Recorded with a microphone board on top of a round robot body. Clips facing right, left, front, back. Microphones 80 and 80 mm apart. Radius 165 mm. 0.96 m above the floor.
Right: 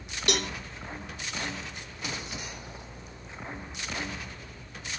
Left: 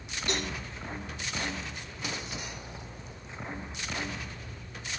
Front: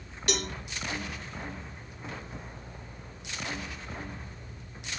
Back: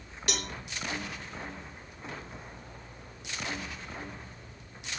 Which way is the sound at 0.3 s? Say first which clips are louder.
Right 3 dB, front 4 dB; 90° right.